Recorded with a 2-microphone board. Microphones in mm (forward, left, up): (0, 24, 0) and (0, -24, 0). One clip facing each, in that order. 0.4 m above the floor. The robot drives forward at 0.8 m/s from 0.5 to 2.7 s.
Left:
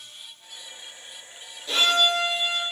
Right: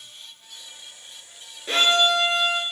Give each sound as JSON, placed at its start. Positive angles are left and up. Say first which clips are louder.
{"t": 1.7, "sound": "a violin", "louder": "right 2 dB", "side_deg": -45, "distance_m": 1.2}